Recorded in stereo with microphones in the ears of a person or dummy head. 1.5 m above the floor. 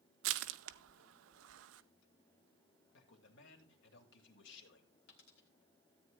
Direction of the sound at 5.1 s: 50° left (ahead or behind).